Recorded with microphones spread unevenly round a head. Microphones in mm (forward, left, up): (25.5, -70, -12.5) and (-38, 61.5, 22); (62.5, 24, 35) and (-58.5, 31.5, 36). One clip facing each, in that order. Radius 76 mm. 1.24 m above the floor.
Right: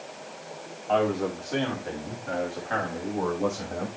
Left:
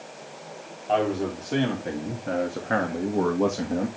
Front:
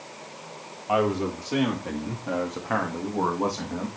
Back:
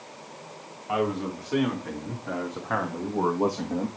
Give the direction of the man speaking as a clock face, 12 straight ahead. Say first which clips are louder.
Even, front 3 dB; 10 o'clock.